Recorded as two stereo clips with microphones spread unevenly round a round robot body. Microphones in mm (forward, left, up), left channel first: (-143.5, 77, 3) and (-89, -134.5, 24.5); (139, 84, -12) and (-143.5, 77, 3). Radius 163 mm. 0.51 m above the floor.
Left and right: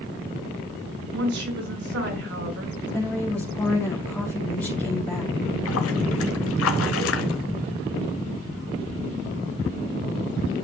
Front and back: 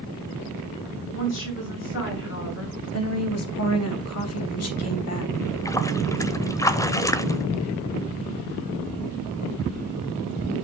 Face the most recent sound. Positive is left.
turn(degrees=80)